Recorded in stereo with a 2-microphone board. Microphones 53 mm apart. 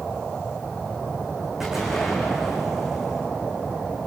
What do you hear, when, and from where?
1.6 s an explosion: 5° right (ahead or behind), 7.5 m